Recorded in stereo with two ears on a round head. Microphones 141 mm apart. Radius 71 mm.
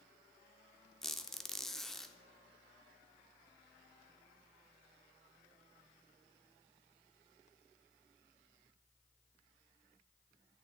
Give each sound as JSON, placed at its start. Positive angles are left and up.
{"t": 1.0, "sound": "a squeak", "side_deg": 5, "distance_m": 0.6}